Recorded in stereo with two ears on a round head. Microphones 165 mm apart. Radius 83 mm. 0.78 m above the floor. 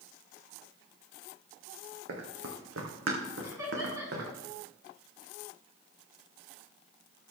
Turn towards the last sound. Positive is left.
turn(degrees=-15)  # may be behind; listen again after turning